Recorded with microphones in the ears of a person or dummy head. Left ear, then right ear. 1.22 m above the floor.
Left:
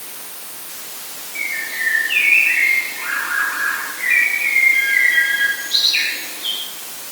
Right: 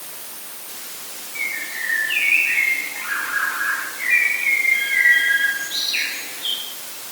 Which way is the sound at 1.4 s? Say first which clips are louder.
Left 3 dB; 10° left (ahead or behind).